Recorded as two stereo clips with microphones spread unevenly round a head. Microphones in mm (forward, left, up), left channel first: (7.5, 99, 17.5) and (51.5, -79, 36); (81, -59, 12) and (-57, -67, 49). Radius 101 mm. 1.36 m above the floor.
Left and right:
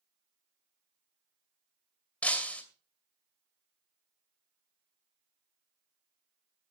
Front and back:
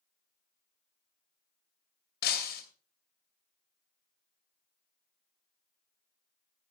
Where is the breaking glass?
20° left, 2.5 m.